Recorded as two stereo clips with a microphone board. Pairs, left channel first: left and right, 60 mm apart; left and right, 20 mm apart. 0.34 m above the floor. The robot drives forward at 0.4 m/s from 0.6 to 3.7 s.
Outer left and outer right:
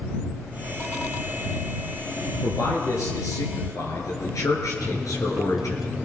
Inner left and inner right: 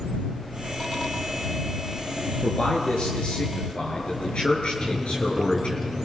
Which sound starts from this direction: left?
A man speaking, at 2.4 s.